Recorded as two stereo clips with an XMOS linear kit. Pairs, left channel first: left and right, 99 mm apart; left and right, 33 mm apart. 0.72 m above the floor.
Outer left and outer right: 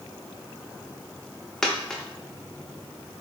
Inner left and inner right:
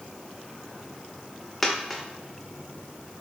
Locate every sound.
1.6 s a dropped coin: 5° left (ahead or behind), 0.6 m